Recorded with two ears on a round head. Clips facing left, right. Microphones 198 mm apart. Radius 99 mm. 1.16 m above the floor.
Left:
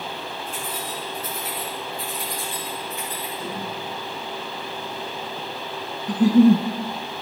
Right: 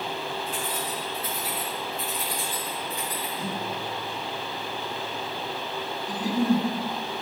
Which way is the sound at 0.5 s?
35° right (ahead or behind).